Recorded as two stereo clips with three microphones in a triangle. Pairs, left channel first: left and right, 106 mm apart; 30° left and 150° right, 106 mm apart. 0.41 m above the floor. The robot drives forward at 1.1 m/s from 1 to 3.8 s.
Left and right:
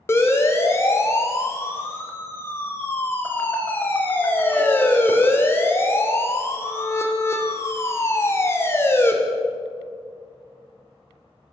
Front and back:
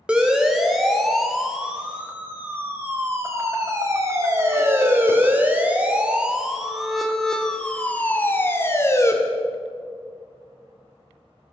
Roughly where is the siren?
Behind left.